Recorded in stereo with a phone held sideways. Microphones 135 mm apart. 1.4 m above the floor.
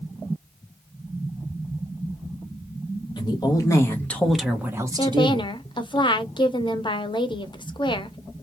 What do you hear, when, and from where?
3.2 s a woman speaking: 35° left (ahead or behind), 1.2 m; by 6.0 s 60° right (ahead or behind), 1.0 m
5.0 s a woman speaking: 35° left (ahead or behind), 0.6 m